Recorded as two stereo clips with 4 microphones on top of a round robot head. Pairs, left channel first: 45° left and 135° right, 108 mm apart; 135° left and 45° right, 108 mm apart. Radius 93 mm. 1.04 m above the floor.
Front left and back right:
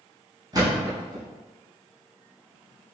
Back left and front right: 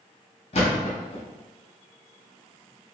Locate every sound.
0.5 s a thud: 170° left, 0.7 m